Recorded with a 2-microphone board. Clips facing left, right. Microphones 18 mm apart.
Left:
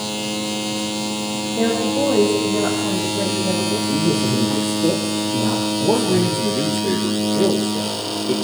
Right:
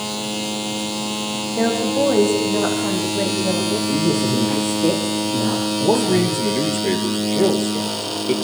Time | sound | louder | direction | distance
1.6 | a woman speaking | right 1 dB | 80° right | 7 m
3.9 | a man speaking | even | 40° right (ahead or behind) | 3.5 m
5.8 | a man speaking | right 1 dB | 60° right (ahead or behind) | 3 m